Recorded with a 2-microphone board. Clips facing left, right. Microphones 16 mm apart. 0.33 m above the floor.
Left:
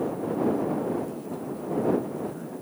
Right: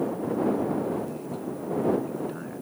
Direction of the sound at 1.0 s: 35° right (ahead or behind).